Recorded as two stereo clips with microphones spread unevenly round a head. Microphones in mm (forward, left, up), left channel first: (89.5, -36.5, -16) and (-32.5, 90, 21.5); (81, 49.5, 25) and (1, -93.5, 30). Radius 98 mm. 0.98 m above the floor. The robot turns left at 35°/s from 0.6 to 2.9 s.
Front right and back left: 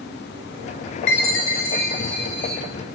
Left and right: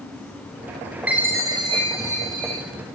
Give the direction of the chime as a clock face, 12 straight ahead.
1 o'clock.